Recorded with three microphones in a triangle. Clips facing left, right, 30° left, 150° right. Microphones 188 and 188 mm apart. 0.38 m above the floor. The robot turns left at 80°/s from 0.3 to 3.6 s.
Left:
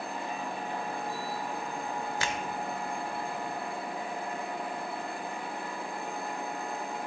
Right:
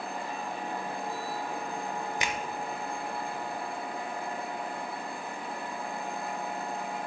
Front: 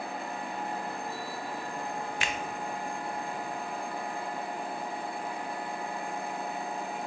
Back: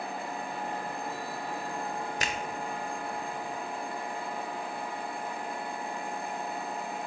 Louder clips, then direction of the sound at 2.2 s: Even, even; 155° right.